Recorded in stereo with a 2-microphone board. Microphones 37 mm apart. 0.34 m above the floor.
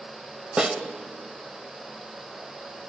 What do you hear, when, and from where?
0.6 s a snare drum: 25° right (ahead or behind), 1.5 m